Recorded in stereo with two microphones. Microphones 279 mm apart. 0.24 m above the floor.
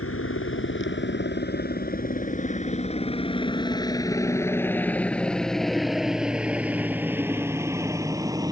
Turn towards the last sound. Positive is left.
turn(degrees=-15)  # may be behind; listen again after turning